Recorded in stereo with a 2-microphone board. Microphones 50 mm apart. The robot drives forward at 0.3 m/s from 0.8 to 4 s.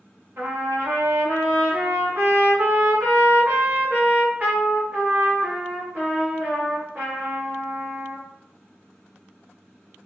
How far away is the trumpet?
About 1.3 m.